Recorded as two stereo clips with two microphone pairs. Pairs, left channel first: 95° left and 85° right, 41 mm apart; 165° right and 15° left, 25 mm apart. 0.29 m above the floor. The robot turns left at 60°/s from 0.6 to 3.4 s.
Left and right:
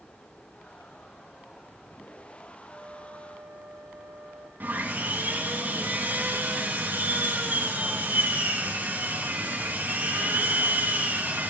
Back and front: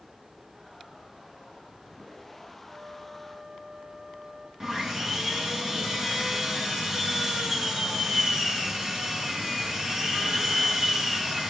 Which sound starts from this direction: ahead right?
Sawing, at 4.6 s.